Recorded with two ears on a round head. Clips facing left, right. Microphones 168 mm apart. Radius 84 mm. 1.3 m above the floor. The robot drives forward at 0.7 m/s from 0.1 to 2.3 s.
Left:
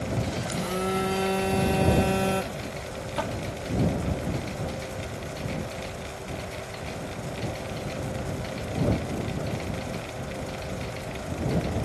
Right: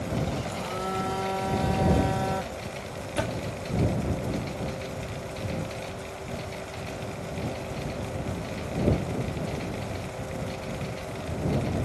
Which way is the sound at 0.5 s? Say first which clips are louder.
Left 4 dB; 30° left (ahead or behind).